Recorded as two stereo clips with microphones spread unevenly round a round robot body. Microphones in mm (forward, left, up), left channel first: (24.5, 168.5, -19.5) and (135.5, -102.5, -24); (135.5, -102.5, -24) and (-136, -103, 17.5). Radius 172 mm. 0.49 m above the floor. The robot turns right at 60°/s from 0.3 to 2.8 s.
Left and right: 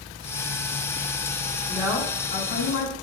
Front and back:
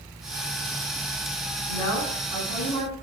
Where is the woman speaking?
25° left, 4.5 m; by 2.9 s 90° left, 4.5 m.